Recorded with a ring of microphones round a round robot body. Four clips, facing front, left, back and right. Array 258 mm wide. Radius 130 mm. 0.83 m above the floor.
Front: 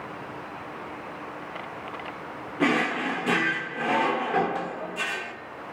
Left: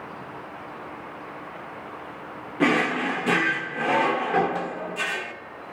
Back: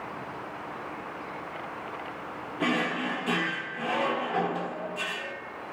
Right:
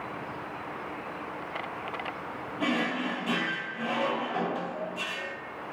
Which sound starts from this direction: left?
A drawer, at 2.6 s.